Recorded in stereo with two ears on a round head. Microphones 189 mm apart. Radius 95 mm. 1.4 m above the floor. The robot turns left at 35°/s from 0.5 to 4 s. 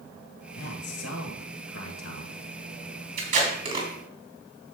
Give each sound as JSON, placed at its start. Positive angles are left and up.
{"t": 0.5, "sound": "a man speaking", "azimuth_deg": 125, "distance_m": 1.9}
{"t": 3.2, "sound": "tape being pulled", "side_deg": -45, "distance_m": 3.5}